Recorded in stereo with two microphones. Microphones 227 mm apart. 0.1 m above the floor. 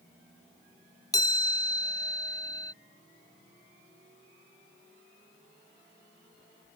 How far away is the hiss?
I don't hear a hiss.